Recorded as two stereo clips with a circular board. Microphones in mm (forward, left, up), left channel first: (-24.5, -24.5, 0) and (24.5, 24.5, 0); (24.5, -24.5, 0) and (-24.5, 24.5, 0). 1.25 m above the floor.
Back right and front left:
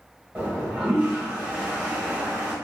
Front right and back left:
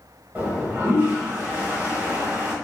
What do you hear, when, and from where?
0.3 s a toilet flushing: 100° left, 1.2 m